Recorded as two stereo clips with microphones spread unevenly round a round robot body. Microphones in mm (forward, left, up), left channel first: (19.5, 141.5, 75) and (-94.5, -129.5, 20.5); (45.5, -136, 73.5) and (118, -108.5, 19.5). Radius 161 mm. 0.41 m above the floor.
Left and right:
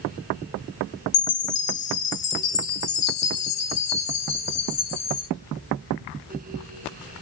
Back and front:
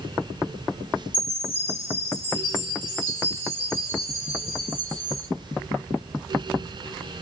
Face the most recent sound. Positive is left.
turn(degrees=90)